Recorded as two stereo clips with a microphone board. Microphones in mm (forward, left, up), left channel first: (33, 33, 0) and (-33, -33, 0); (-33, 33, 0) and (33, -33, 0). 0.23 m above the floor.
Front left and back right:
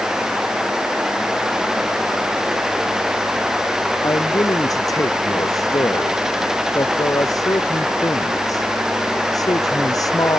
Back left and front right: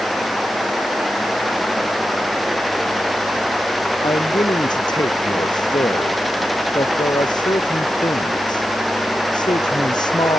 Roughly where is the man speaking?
Left.